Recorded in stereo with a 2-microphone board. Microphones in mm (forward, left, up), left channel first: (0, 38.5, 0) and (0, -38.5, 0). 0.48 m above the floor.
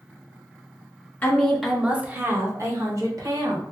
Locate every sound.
1.2 s a woman speaking: 20° left (ahead or behind), 0.7 m; by 3.6 s 55° right (ahead or behind), 1.6 m